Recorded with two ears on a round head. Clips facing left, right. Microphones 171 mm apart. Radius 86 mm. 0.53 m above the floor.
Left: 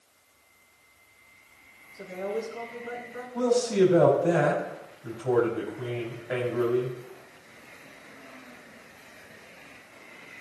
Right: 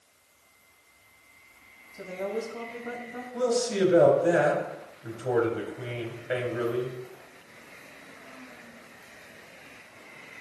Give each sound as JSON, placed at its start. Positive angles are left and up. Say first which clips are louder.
{"t": 1.9, "sound": "a woman speaking", "louder": "even", "side_deg": -70, "distance_m": 3.0}
{"t": 3.3, "sound": "a man speaking", "louder": "left 3 dB", "side_deg": -35, "distance_m": 3.5}